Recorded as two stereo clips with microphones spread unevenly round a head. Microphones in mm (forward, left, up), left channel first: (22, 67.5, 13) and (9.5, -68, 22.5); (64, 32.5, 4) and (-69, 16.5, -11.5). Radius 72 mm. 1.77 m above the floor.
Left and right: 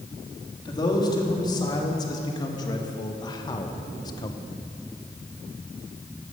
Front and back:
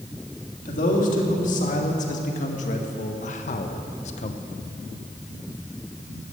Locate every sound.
0.7 s a man speaking: 25° left, 3.5 m